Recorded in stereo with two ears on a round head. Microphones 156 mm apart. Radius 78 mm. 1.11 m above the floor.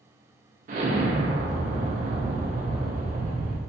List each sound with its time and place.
0.7 s an explosion: 45° right (ahead or behind), 0.6 m